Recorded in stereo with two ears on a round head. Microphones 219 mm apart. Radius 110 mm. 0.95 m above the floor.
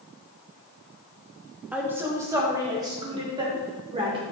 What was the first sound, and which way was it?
A woman speaking, 5° right (ahead or behind).